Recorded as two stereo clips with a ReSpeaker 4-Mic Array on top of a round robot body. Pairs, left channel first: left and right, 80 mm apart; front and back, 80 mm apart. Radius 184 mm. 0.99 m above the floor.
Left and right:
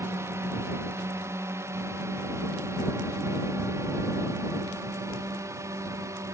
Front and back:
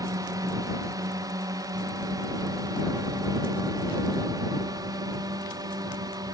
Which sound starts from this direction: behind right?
A drone, at 0.0 s.